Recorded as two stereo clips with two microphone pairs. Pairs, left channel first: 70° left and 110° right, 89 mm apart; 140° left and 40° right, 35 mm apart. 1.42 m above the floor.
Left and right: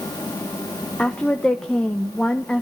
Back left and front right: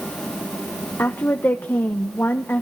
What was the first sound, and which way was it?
A woman speaking, 150° left.